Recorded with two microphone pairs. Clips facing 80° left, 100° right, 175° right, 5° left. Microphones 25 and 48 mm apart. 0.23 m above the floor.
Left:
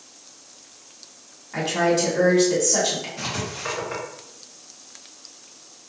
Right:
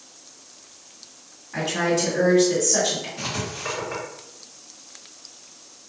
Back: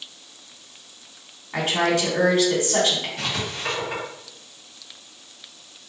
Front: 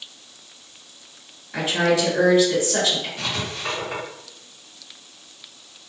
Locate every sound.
1.5 s a woman speaking: 160° left, 1.7 m
3.2 s writing: 115° left, 1.4 m